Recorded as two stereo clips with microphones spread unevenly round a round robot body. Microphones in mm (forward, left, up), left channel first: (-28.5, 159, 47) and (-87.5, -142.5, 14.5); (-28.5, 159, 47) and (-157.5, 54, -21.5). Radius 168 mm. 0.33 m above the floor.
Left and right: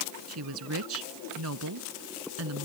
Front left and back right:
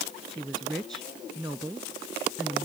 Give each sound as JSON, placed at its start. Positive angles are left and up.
{"t": 0.3, "sound": "a woman speaking", "azimuth_deg": -55}